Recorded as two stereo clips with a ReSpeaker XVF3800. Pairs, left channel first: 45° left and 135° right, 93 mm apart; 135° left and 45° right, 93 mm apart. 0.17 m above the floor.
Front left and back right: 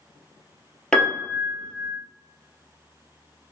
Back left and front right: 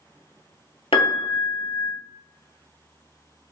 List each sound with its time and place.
0.9 s a piano: 125° left, 0.7 m